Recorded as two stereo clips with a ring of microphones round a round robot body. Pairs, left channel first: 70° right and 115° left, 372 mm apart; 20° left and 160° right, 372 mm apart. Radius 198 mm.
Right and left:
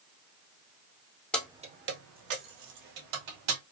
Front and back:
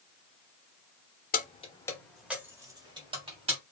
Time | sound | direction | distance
1.3 | keys jangling | 15° left | 0.9 m